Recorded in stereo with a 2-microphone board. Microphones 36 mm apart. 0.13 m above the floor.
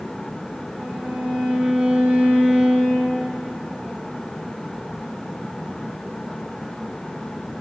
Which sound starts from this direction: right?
A violin, at 0.8 s.